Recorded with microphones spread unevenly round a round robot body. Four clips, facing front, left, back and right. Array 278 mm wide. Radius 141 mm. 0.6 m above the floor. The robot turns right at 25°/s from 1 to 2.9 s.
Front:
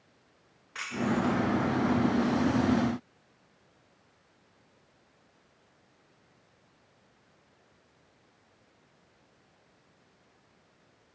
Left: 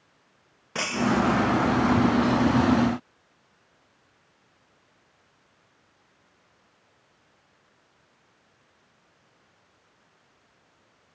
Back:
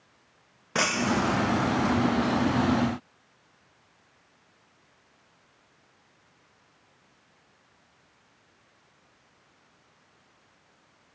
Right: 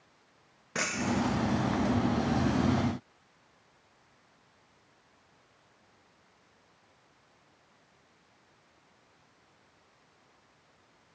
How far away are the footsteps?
No footsteps in this recording.